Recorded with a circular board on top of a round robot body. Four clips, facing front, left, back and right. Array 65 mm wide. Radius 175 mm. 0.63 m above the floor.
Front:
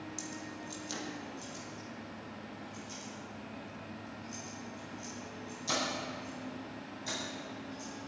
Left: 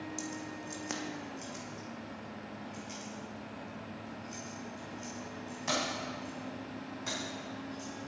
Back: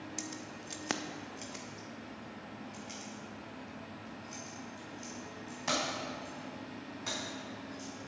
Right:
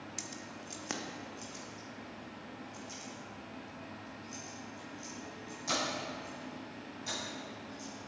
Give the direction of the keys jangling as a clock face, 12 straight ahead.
4 o'clock.